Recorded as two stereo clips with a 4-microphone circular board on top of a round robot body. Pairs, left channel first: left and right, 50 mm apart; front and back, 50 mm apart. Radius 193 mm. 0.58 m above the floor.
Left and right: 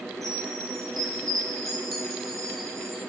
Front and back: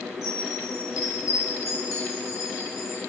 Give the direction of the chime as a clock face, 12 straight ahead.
12 o'clock.